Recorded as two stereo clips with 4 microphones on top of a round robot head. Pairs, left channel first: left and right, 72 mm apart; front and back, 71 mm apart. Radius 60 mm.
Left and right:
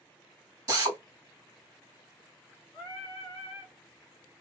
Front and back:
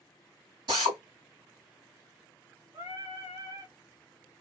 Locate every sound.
0.7 s a drill: 130° right, 2 m
2.7 s singing: 150° right, 1.6 m